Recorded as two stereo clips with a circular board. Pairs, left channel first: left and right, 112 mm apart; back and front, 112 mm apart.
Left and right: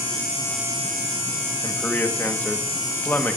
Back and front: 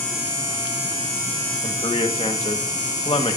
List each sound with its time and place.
1.6 s a man speaking: 160° left, 1.3 m